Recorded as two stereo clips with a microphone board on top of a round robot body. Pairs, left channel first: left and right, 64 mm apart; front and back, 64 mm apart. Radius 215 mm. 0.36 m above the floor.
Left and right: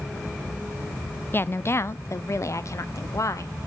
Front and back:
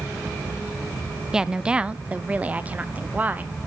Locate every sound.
1.3 s a woman speaking: 110° left, 0.9 m; by 3.5 s 120° left, 1.8 m